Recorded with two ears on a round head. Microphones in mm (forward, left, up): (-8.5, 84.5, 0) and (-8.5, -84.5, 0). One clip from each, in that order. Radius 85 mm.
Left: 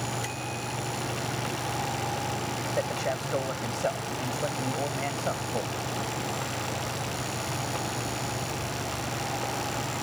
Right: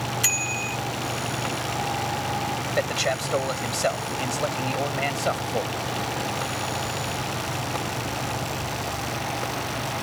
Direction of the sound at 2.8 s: 80° right.